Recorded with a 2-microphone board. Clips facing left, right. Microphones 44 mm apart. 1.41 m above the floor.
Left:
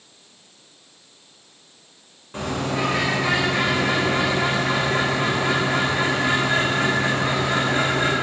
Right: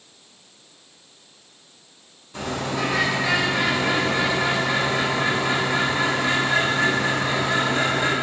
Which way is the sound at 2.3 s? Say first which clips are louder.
Left 1 dB; 35° left (ahead or behind).